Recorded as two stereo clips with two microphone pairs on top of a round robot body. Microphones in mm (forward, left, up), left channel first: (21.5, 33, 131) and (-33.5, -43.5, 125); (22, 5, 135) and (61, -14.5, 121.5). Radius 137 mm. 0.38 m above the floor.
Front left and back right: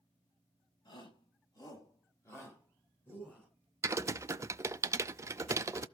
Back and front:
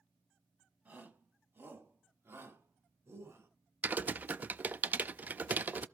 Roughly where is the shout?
Ahead.